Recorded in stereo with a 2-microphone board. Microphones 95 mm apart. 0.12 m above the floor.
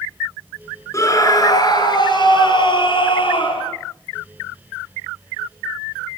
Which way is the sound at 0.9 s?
30° left (ahead or behind).